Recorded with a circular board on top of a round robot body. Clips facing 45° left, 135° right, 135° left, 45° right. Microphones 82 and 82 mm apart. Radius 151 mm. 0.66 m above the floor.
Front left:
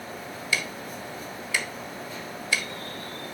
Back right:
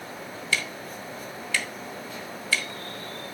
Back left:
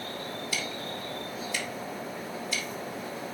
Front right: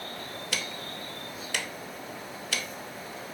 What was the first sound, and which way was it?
Ticking, 30° right.